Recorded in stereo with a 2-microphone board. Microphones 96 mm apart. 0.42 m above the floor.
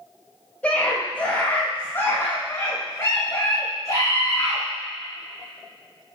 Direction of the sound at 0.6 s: 20° left (ahead or behind).